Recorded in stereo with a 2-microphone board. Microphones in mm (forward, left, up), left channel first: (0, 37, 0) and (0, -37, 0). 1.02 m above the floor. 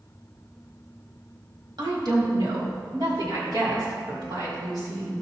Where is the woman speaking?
70° right (ahead or behind), 2 m; by 5.2 s 75° right (ahead or behind), 4 m.